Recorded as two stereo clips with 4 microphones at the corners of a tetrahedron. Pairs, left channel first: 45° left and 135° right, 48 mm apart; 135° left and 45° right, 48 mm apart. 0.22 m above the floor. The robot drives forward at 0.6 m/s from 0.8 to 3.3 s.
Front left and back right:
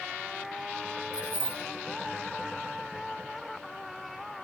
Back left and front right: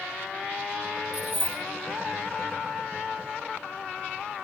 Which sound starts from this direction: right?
Keys jangling, at 1.1 s.